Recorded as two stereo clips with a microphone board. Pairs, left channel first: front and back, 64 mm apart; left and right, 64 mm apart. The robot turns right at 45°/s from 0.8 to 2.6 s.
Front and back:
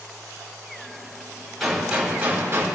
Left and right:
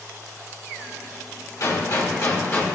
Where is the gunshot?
85° left, 3 m; by 2.7 s 130° left, 3 m.